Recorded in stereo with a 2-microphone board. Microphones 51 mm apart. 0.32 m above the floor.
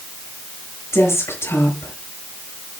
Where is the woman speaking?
65° left (ahead or behind), 5.5 m.